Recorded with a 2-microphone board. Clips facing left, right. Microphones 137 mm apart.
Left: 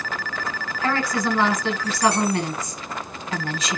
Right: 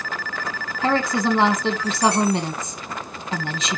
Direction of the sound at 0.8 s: 25° right (ahead or behind).